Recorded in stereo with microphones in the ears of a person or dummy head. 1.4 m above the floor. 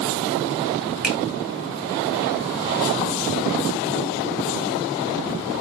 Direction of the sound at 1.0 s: Centre (ahead or behind).